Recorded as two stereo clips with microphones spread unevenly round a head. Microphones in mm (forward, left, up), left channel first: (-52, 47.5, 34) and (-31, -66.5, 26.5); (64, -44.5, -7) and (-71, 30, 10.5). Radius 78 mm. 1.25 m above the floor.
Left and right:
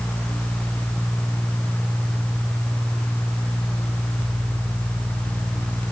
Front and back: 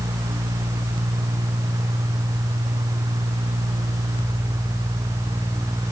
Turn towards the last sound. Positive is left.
No sound to turn to.